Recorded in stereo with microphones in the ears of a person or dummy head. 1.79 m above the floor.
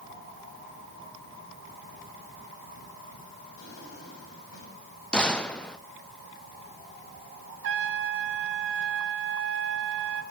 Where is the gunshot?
5° left (ahead or behind), 0.6 m.